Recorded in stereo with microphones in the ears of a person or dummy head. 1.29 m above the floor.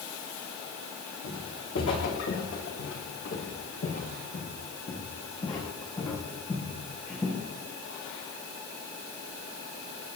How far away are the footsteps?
About 6 m.